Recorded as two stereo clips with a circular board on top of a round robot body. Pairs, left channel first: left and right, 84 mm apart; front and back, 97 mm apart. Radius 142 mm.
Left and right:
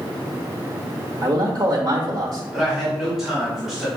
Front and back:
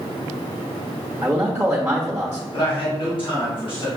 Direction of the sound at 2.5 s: 5° right.